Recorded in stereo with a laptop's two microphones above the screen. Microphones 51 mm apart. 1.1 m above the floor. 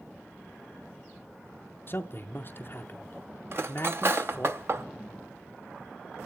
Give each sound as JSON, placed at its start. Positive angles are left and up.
{"t": 1.9, "sound": "a man speaking", "side_deg": 45, "distance_m": 0.5}
{"t": 3.5, "sound": "cutlery clinking", "side_deg": -50, "distance_m": 0.5}